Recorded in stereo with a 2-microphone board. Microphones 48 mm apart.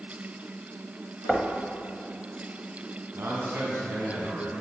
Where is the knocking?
Centre (ahead or behind), 1.0 m.